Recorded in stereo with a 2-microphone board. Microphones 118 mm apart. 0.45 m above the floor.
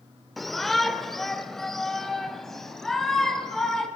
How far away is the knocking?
No knocking in this recording.